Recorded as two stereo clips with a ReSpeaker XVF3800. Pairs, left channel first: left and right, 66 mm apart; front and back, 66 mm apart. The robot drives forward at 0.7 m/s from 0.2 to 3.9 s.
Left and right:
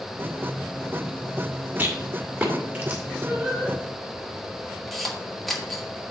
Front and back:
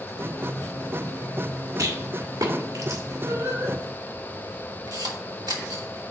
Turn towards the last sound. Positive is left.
turn(degrees=175)